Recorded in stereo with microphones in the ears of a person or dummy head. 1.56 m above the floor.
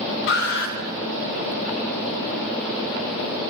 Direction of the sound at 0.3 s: 65° left (ahead or behind).